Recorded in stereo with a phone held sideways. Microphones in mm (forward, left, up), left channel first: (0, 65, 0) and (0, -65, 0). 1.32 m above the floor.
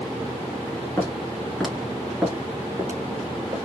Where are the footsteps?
20° left (ahead or behind), 1.3 m; by 3.6 s 35° right (ahead or behind), 1.6 m.